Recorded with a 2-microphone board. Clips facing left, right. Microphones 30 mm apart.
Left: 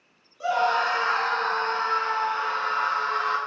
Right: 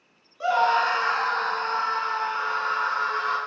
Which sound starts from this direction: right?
A scream, at 0.4 s.